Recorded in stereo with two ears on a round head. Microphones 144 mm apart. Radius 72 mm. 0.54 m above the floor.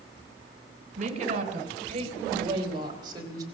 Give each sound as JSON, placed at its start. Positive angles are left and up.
{"t": 1.0, "sound": "a woman speaking", "side_deg": -45, "distance_m": 3.0}